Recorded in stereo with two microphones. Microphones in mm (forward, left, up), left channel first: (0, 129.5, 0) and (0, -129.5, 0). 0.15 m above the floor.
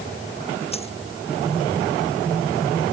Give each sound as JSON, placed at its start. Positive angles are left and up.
{"t": 0.7, "sound": "a dropped coin", "side_deg": 25}